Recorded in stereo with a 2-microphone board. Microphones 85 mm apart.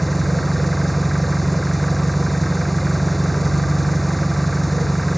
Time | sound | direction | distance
0.0 | an engine running | centre (ahead or behind) | ?